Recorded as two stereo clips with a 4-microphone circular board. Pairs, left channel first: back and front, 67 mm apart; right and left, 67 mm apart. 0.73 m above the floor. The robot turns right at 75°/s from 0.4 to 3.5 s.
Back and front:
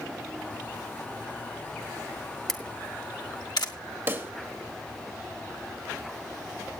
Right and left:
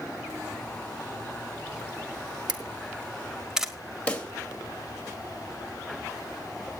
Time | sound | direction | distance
2.5 | a camera shutter | 95° left | 1.4 m
4.1 | a pop | 25° right | 1.1 m